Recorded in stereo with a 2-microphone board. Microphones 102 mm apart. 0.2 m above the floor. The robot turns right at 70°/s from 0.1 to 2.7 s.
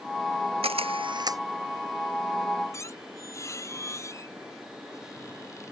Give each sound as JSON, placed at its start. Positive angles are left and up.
{"t": 0.6, "sound": "a camera shutter", "azimuth_deg": -90}
{"t": 2.7, "sound": "a squeak", "side_deg": 35}